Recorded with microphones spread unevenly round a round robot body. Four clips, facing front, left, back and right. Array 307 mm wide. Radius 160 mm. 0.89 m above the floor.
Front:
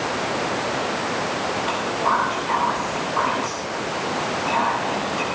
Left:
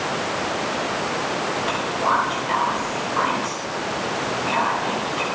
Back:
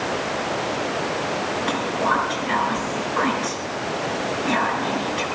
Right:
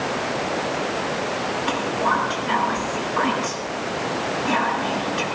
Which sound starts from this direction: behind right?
Whispering, at 1.7 s.